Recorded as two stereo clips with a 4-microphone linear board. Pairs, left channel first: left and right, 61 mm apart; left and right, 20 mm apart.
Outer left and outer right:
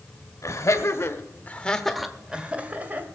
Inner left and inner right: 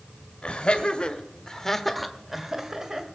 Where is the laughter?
60° left (ahead or behind), 1.7 m; by 3.1 s 30° right (ahead or behind), 1.9 m.